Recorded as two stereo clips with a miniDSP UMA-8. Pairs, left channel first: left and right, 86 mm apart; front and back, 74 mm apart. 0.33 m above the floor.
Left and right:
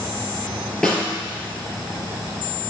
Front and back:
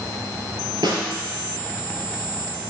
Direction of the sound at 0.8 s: 175° left.